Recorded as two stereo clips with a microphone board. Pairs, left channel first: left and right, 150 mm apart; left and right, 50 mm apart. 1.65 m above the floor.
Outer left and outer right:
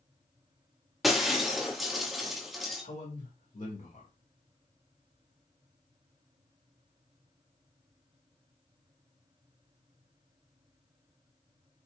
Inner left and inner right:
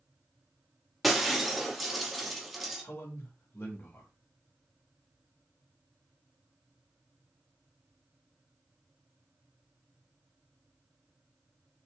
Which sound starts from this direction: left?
A man speaking, at 2.8 s.